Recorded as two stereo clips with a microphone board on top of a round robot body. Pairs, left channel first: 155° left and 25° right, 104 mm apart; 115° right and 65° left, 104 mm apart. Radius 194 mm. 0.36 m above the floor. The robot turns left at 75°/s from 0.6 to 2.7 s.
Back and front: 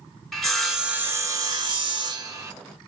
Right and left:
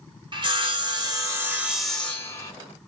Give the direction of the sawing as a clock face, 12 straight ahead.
10 o'clock.